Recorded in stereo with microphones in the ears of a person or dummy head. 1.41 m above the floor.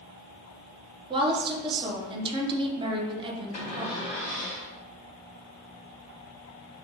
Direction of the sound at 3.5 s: 40° left (ahead or behind).